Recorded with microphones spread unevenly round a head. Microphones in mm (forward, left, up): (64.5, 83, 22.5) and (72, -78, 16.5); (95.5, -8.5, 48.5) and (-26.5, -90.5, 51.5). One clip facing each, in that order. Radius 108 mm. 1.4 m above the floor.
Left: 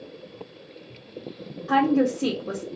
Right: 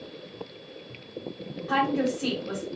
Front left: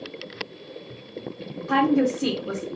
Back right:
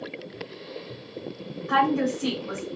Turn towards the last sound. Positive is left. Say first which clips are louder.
# left 5 dB, front left 3 dB
turn(degrees=55)